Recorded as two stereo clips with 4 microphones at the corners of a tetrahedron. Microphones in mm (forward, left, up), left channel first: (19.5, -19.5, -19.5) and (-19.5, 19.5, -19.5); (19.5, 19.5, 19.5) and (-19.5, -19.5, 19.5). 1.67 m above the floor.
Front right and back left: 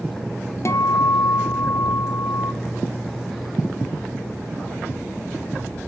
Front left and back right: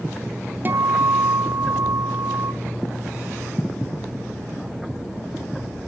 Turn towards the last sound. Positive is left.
turn(degrees=-80)